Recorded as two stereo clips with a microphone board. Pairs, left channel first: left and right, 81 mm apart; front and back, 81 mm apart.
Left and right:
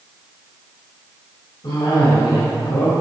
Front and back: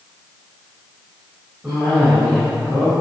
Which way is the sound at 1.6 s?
105° left.